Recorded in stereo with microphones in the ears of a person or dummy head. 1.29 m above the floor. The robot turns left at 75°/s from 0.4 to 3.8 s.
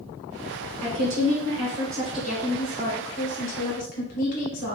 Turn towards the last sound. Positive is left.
turn(degrees=55)